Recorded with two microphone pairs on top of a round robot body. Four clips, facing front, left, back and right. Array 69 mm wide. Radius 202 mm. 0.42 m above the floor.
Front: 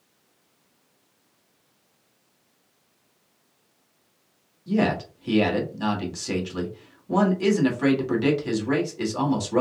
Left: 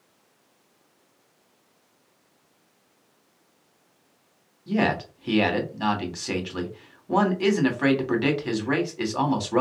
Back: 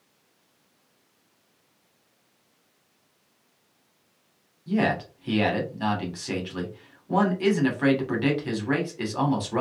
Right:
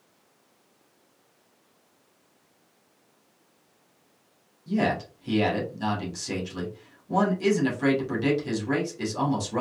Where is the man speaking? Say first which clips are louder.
Left 2 dB, front 1 dB; 105° left, 2.5 m.